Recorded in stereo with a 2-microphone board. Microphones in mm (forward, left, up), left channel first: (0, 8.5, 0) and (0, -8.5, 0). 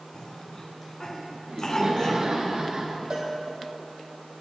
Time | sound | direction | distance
0.1 | a cough | 40° left (ahead or behind) | 2 m
1.5 | laughter | 50° right (ahead or behind) | 2.5 m
3.1 | a cowbell | 75° right (ahead or behind) | 3 m